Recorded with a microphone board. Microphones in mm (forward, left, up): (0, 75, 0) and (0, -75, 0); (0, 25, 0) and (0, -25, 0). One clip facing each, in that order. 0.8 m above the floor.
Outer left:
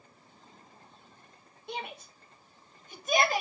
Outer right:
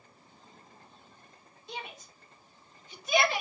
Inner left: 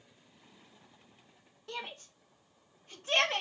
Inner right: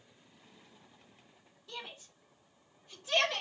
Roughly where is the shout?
Left.